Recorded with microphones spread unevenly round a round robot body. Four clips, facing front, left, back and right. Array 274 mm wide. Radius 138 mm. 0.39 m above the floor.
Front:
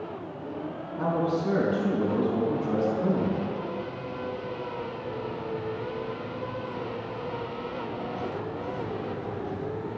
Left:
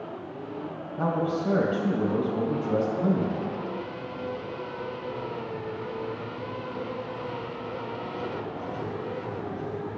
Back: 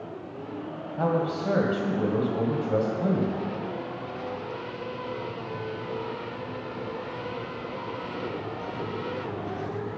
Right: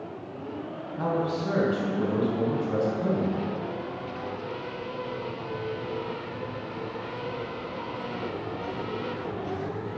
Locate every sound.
1.0 s a man speaking: 160° left, 2.5 m